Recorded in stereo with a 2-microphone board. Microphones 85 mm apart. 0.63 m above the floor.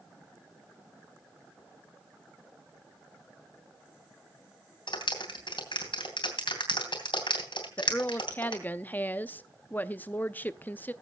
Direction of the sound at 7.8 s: 20° left (ahead or behind).